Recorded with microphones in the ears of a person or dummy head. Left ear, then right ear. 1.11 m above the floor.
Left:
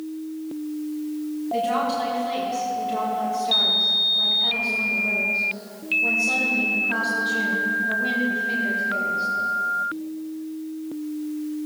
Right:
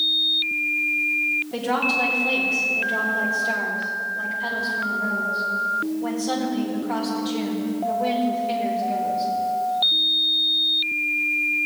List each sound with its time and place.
1.5 s a woman speaking: 25° right (ahead or behind), 3 m